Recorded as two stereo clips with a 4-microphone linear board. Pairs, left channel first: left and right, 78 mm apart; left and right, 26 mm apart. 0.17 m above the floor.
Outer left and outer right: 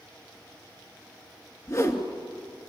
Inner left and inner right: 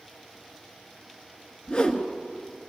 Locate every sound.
1.7 s a whoosh: 40° left (ahead or behind), 2 m